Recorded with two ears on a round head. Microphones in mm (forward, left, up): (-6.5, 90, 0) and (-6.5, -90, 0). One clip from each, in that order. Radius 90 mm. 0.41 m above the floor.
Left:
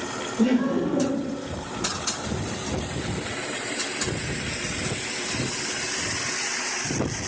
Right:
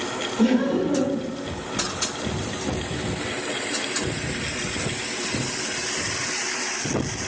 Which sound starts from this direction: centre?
Laughter, at 0.4 s.